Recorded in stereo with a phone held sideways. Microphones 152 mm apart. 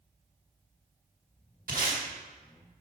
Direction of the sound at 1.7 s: 65° right (ahead or behind).